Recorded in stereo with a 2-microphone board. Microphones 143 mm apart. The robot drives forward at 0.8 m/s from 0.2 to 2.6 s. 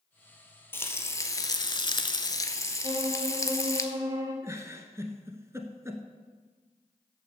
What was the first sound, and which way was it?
Frying, 15° left (ahead or behind).